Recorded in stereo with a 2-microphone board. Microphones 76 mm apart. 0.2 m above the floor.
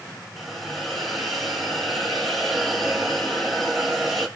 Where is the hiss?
Centre (ahead or behind), 1.0 m.